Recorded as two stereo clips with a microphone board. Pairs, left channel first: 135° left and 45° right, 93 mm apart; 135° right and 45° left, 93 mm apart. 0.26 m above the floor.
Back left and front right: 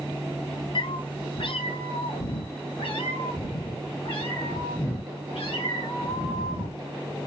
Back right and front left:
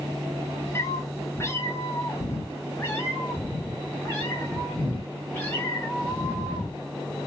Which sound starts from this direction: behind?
A cat meowing, at 0.8 s.